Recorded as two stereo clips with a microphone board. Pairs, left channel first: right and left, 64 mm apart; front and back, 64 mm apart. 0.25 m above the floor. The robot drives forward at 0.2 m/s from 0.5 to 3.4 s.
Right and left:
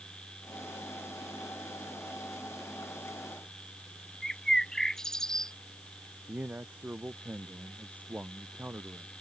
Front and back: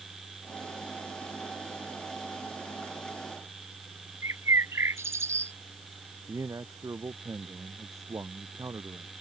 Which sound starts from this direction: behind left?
A man speaking, at 6.3 s.